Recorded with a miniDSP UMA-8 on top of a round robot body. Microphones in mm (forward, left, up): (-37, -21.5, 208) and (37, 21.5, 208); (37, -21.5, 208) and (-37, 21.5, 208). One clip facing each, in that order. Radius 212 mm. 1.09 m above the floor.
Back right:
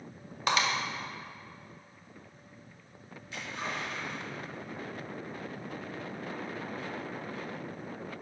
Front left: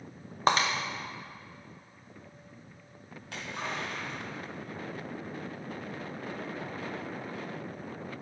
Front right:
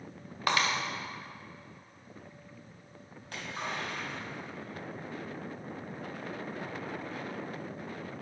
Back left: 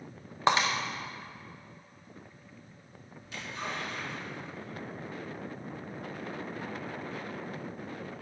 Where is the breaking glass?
85° left, 0.6 m.